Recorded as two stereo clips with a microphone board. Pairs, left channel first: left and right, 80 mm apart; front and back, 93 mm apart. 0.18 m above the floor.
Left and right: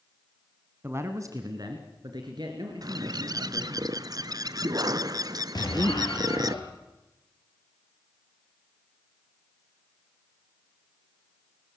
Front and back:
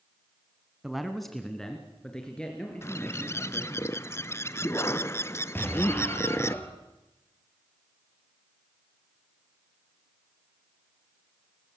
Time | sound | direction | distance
0.8 | a man speaking | 100° right | 1.5 m
2.8 | a bird | 60° right | 0.6 m
5.5 | an explosion | 65° left | 4 m